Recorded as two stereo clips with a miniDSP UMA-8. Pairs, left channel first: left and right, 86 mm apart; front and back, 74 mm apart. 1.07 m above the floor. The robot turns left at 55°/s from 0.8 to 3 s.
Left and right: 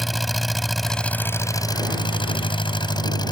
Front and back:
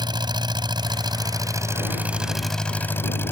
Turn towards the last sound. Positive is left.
turn(degrees=60)